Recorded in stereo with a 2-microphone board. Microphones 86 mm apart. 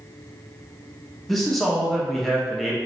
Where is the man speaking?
Centre (ahead or behind), 0.6 m.